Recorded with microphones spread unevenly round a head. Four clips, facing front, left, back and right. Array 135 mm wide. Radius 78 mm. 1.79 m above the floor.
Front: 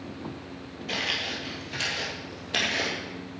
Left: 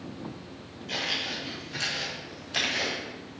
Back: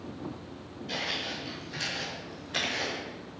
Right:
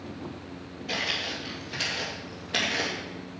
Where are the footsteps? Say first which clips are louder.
Right 1 dB, front 3 dB; 65° right, 2 m; by 3.0 s 50° right, 3 m.